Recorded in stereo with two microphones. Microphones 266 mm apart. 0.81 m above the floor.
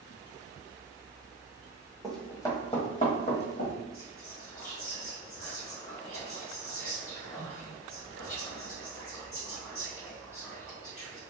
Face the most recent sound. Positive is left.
turn(degrees=55)  # may be behind; listen again after turning